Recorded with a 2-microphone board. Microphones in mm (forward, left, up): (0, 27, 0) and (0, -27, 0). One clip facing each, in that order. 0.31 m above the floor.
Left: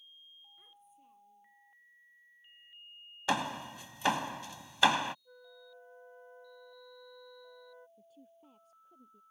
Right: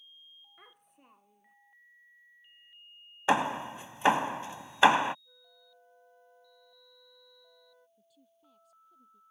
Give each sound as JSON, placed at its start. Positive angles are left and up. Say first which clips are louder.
{"t": 0.6, "sound": "a child speaking", "louder": "right 2 dB", "side_deg": -60}
{"t": 3.3, "sound": "hammering", "louder": "right 6 dB", "side_deg": -25}
{"t": 5.2, "sound": "a flute", "louder": "left 7 dB", "side_deg": 35}
{"t": 8.0, "sound": "a woman speaking", "louder": "left 7 dB", "side_deg": 35}